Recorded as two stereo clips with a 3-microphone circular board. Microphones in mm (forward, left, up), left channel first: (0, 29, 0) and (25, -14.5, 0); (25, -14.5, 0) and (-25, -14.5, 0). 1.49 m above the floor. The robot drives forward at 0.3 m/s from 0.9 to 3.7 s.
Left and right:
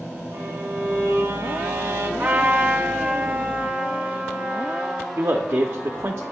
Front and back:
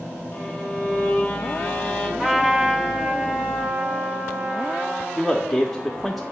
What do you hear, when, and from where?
0.3 s a violin: 55° right, 1.7 m; by 2.1 s 70° right, 1.6 m
2.2 s a trumpet: 105° right, 1.0 m; by 5.1 s 125° right, 1.2 m
5.2 s a man speaking: 90° right, 0.7 m